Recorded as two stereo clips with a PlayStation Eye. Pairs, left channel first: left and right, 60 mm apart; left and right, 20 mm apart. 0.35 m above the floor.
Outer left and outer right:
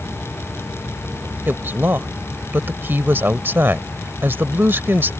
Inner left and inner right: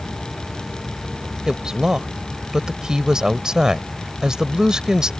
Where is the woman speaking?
40° right (ahead or behind).